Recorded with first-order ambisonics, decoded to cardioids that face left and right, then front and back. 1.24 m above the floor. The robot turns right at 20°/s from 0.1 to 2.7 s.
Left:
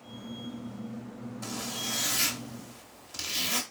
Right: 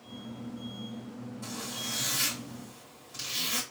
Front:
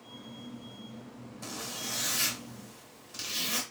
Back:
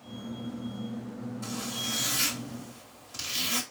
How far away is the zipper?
About 1.0 m.